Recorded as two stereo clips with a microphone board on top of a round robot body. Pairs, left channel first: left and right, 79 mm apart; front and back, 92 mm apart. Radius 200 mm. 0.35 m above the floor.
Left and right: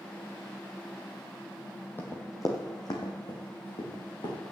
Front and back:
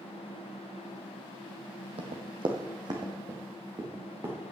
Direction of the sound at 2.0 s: 160° left.